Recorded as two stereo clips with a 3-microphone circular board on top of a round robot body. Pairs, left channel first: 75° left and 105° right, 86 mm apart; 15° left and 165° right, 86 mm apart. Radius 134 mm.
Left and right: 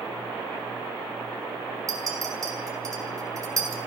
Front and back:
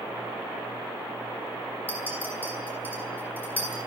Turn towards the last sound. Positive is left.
turn(degrees=-55)